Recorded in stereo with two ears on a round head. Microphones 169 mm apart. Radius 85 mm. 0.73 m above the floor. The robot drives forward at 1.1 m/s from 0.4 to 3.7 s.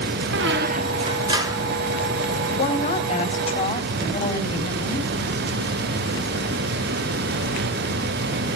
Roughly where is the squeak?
Right.